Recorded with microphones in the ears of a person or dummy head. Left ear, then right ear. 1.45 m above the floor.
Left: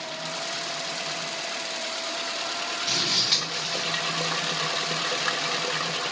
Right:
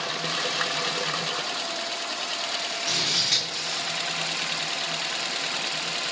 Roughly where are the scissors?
Centre.